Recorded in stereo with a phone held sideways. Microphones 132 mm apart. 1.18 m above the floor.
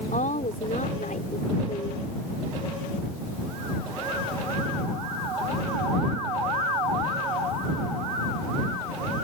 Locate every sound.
0.1 s a woman speaking: 85° left